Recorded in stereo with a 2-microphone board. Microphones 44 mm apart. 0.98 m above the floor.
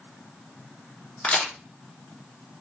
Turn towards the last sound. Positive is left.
turn(degrees=35)  # may be behind; listen again after turning